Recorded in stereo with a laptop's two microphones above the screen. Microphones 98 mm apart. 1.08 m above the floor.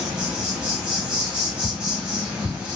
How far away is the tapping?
About 1.4 m.